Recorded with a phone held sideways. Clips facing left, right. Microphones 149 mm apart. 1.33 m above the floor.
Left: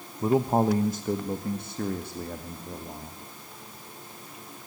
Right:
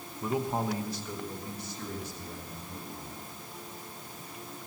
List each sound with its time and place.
0.2 s a man speaking: 35° left (ahead or behind), 1.0 m; by 3.2 s 65° left (ahead or behind), 2.5 m